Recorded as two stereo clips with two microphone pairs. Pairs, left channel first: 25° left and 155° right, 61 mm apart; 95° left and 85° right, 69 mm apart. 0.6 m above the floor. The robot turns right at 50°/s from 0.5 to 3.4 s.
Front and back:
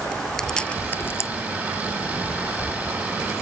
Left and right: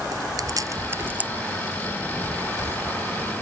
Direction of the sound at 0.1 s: 55° right.